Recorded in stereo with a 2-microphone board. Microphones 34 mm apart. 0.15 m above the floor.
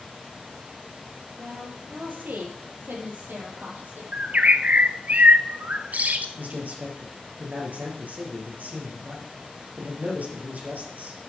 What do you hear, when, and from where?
1.4 s a woman speaking: 60° right (ahead or behind), 3 m; by 4.0 s 75° right (ahead or behind), 5 m
4.1 s a bird: 55° right (ahead or behind), 0.7 m
6.4 s a man speaking: 55° right (ahead or behind), 3.5 m